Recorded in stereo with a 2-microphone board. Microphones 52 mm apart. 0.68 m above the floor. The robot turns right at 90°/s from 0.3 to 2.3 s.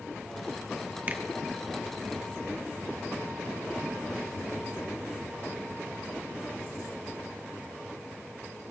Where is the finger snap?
30° right (ahead or behind), 1.0 m; by 1.2 s 20° right (ahead or behind), 1.0 m.